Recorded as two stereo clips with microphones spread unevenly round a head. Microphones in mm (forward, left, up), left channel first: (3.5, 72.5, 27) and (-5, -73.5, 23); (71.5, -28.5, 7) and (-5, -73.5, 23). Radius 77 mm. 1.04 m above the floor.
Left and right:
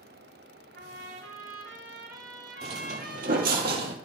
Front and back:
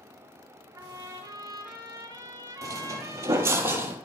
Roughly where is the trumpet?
Right.